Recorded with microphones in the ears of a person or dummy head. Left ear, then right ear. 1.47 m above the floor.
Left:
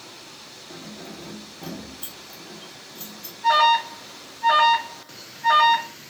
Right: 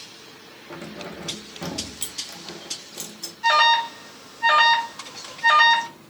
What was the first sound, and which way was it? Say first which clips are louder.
Keys jangling: right 5 dB; 65° right (ahead or behind).